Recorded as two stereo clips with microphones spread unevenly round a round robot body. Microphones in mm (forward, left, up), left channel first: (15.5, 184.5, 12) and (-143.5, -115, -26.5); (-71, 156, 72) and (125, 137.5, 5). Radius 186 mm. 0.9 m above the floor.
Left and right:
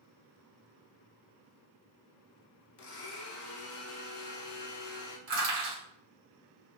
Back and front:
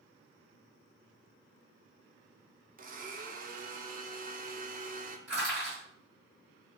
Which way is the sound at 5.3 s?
70° right.